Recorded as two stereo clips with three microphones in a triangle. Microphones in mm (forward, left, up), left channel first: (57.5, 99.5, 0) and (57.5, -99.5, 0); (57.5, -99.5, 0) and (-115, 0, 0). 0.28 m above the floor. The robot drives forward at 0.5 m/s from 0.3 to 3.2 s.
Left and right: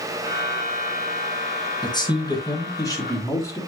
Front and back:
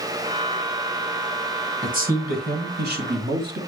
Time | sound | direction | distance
1.8 | a man speaking | 145° left | 1.5 m